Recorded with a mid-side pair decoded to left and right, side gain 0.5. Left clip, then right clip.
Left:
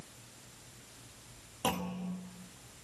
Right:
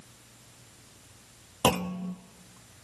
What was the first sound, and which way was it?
A clunk, 60° right.